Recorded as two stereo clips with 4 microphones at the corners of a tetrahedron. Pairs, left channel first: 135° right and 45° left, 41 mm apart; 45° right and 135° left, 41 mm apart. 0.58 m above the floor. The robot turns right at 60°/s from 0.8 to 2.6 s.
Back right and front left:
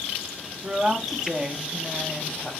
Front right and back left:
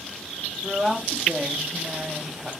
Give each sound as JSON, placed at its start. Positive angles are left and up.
{"t": 0.6, "sound": "a woman speaking", "azimuth_deg": 75, "distance_m": 0.7}